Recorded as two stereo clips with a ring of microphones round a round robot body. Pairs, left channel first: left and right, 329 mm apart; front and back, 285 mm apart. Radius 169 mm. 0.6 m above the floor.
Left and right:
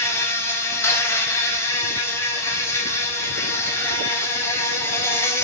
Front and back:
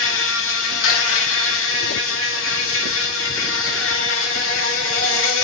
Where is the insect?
10° left, 1.7 m.